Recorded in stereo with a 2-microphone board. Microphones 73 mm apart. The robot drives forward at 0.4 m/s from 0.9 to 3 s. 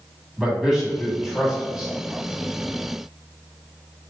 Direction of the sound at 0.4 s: 10° right (ahead or behind).